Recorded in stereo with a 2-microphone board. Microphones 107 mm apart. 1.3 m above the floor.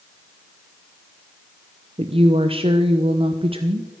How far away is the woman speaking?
About 0.7 m.